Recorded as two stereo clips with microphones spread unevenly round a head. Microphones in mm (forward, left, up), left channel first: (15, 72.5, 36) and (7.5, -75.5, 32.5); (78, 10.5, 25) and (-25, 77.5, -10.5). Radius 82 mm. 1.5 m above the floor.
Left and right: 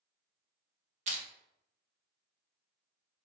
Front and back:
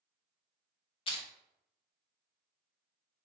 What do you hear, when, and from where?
1.1 s crushing: 55° right, 0.8 m